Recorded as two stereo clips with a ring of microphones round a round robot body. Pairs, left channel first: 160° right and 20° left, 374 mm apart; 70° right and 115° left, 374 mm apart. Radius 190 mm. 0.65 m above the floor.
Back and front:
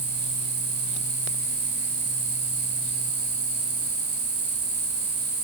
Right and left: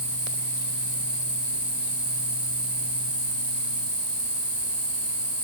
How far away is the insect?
About 4 m.